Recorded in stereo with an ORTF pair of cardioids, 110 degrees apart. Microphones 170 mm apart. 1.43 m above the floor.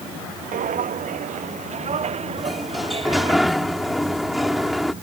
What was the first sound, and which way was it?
Footsteps, 55° right.